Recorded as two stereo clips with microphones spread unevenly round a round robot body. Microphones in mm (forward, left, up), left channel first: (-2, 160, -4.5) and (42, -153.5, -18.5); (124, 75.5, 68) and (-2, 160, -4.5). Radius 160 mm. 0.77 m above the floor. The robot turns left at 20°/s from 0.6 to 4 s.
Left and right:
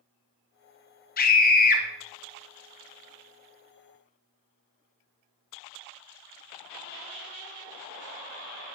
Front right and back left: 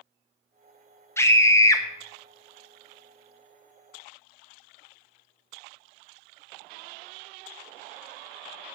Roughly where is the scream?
Left.